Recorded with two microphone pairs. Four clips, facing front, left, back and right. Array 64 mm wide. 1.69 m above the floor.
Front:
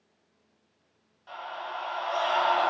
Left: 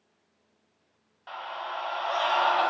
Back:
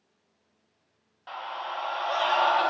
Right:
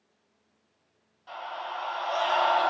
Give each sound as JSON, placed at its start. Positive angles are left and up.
{"t": 1.3, "sound": "a scream", "azimuth_deg": 130, "distance_m": 2.5}